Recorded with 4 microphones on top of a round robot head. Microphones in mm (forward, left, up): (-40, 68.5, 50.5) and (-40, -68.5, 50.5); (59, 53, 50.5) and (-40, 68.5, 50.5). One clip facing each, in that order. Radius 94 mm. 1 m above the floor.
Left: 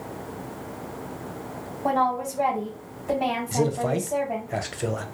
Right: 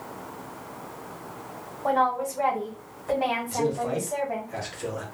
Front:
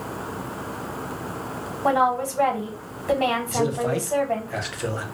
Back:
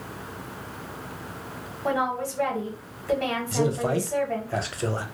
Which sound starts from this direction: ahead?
A woman speaking, at 1.8 s.